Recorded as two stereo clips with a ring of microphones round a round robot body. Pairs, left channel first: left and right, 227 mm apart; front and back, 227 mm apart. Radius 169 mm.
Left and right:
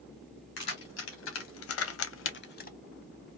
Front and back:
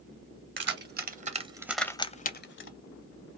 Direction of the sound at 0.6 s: 135° left.